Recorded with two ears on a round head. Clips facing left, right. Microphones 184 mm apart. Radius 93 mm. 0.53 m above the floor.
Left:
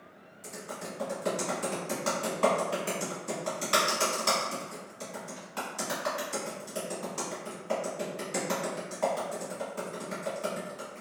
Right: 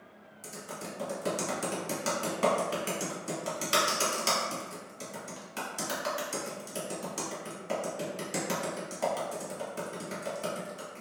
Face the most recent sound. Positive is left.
turn(degrees=-30)  # may be behind; listen again after turning